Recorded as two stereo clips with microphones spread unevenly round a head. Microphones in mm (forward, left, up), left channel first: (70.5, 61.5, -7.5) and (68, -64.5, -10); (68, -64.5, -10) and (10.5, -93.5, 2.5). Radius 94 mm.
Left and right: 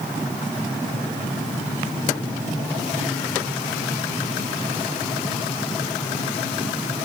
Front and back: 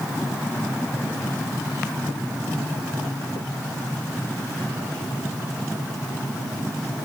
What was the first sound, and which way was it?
Only background noise.